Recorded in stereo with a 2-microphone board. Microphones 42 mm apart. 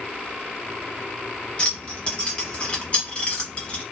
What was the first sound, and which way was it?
Keys jangling, 25° left (ahead or behind).